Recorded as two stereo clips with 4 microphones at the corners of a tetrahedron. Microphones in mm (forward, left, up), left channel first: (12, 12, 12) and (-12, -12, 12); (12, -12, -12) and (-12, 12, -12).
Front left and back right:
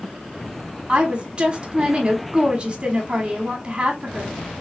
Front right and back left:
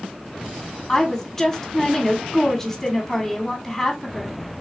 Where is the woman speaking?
120° right, 1.2 m.